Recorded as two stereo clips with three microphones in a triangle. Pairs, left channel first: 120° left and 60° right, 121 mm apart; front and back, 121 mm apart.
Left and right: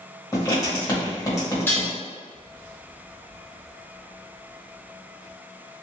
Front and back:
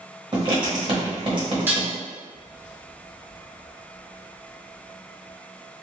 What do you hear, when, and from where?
0.3 s writing: 170° left, 1.0 m
1.7 s dishes clattering: 150° left, 0.8 m